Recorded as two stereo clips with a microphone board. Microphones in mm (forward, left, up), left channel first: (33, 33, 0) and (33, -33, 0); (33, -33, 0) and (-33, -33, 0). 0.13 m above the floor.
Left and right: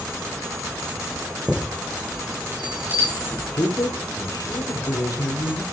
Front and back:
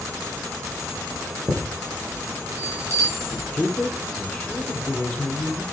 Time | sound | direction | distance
1.5 | a chime | 140° right | 4.5 m
3.5 | a man speaking | 75° left | 4 m